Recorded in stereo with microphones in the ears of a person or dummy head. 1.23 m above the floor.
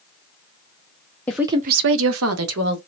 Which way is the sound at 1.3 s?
5° left (ahead or behind).